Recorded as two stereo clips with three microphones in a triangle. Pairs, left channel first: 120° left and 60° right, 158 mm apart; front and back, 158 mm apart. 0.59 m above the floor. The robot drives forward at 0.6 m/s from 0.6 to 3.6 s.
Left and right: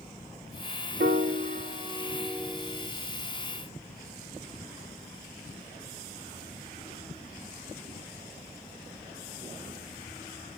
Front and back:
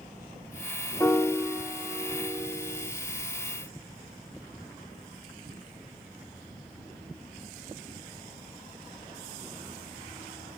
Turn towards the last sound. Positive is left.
turn(degrees=-160)